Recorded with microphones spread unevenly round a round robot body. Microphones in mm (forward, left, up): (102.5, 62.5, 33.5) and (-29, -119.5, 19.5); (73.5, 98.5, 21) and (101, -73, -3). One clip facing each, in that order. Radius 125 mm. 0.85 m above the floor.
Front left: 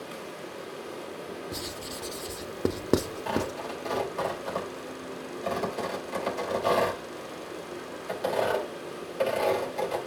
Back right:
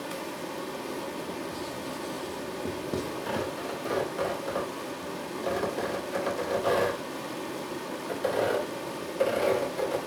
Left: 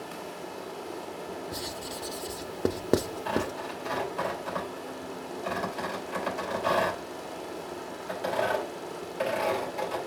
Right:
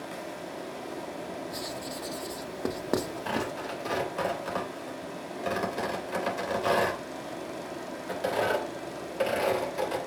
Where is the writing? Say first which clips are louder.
Back right 2 dB, right 1 dB; 35° left, 0.6 m.